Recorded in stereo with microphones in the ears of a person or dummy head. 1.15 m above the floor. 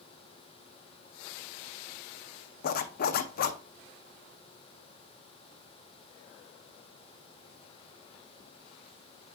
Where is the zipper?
55° left (ahead or behind), 0.6 m.